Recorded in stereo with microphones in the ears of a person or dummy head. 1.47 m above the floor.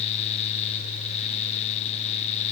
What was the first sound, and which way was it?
Only background noise.